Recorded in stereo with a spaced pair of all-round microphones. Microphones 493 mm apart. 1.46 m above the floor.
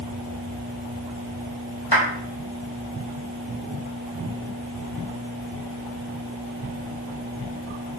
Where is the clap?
55° left (ahead or behind), 6 m.